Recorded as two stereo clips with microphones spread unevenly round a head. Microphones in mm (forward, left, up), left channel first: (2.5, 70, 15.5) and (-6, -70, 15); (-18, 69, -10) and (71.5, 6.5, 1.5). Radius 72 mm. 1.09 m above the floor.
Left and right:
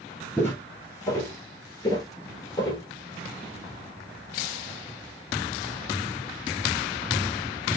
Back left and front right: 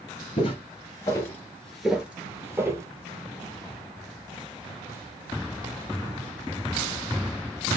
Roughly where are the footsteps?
Behind left.